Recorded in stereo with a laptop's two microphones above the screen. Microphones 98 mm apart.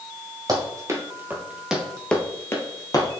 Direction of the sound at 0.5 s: 40° right (ahead or behind).